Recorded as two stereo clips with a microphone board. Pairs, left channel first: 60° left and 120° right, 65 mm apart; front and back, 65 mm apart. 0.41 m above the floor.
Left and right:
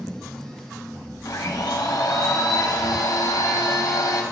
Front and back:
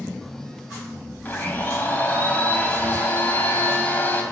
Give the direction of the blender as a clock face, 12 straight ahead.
10 o'clock.